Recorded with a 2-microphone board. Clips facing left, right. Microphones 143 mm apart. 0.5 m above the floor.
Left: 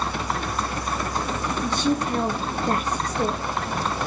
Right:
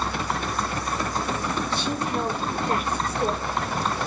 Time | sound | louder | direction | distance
1.6 | a woman speaking | left 4 dB | 40° left (ahead or behind) | 6.5 m